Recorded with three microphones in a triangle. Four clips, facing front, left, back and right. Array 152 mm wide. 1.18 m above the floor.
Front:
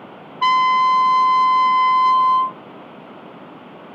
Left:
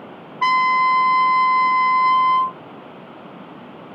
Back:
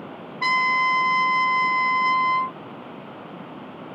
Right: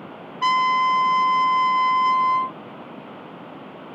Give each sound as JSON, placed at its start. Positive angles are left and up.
{"t": 0.4, "sound": "a trumpet", "azimuth_deg": 70, "distance_m": 0.5}